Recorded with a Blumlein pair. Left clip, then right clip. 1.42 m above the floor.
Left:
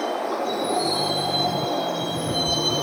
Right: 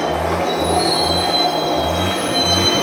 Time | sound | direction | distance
0.0 | a vehicle | 20° right | ?